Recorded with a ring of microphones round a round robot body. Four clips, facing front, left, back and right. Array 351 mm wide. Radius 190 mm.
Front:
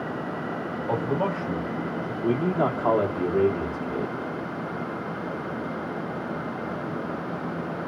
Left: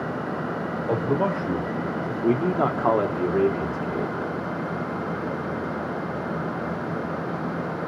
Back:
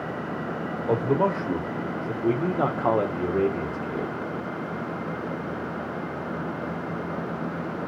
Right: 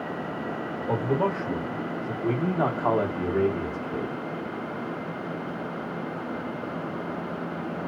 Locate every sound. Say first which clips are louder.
0.9 s a man speaking: left 2 dB, back 4 dB; 150° left, 1.6 m
2.2 s a man speaking: left 4 dB, even; 110° left, 1.3 m